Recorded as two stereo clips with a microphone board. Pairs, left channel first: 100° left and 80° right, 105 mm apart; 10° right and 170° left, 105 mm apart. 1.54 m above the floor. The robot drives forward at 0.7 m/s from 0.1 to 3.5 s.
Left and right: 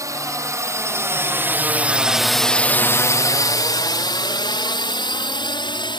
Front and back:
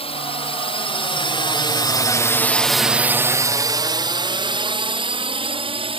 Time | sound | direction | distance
0.0 | a drone | 25° right | ?